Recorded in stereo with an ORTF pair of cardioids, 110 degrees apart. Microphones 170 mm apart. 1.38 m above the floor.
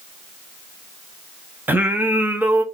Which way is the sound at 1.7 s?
10° right.